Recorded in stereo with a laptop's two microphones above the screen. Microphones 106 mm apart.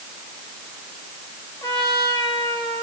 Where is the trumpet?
35° left (ahead or behind), 5.5 m.